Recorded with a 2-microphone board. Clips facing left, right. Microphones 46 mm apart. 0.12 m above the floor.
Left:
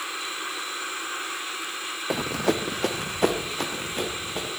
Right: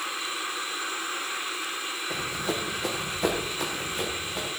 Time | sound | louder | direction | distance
2.1 | running footsteps | left 7 dB | 85° left | 0.7 m